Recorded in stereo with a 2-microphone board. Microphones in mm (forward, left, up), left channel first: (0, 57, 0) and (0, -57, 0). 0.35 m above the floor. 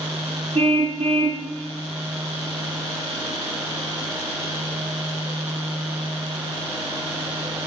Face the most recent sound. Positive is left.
turn(degrees=-55)  # may be behind; listen again after turning